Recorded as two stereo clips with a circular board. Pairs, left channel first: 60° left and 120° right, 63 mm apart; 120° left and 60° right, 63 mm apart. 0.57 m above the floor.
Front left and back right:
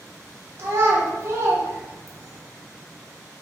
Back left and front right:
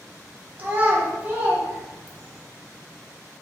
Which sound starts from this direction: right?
A child speaking, at 0.6 s.